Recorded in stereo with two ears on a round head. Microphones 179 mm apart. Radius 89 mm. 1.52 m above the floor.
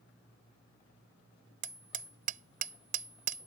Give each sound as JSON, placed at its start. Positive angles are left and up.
{"t": 1.6, "sound": "hammering", "side_deg": -45}